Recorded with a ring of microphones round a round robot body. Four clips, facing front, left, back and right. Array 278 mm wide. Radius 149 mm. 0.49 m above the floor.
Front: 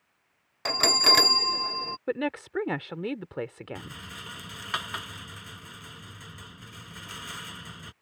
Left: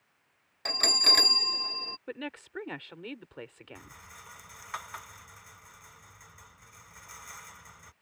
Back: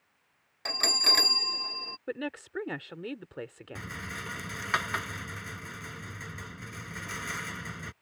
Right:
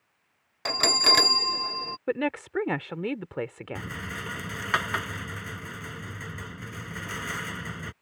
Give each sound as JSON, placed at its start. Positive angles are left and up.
{"t": 0.7, "sound": "a bell", "azimuth_deg": -45}
{"t": 2.1, "sound": "a woman speaking", "azimuth_deg": -60}
{"t": 3.8, "sound": "a rattle", "azimuth_deg": -100}